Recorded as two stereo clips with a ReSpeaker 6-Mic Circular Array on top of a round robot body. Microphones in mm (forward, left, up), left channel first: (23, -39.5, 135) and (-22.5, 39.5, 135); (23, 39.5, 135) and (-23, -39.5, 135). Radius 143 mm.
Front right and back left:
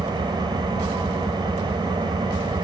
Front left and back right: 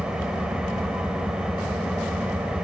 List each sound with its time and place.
0.0 s an engine running: 160° left, 3 m